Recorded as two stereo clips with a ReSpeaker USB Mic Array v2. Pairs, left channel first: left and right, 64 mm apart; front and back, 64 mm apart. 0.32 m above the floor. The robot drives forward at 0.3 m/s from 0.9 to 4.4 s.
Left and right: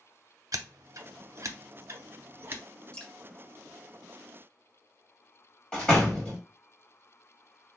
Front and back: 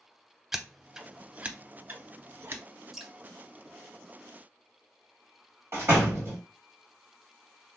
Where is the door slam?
160° left, 1.1 m.